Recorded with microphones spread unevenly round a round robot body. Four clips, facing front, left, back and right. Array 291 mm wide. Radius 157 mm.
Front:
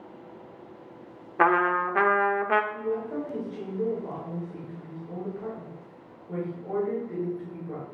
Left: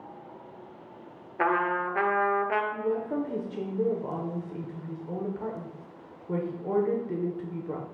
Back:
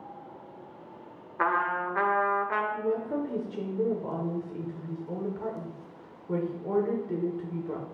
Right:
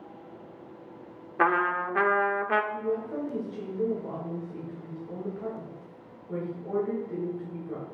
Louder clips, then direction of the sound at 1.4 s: Right 1 dB, front 5 dB; 25° right.